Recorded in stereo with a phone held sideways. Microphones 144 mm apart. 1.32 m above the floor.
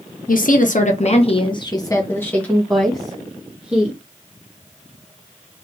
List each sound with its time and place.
0.3 s a woman speaking: 75° left (ahead or behind), 0.9 m; by 4.0 s 10° right (ahead or behind), 1.7 m